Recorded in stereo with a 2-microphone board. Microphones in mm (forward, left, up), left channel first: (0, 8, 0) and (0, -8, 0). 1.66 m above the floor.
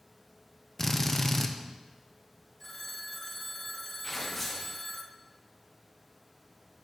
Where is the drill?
25° left (ahead or behind), 0.5 m.